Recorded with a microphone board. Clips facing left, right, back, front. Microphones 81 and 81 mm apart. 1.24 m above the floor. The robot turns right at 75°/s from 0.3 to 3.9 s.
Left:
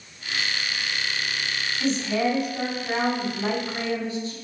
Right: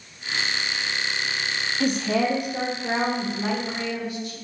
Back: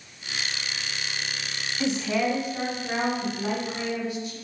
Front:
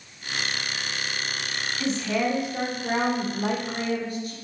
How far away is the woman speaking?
About 0.6 m.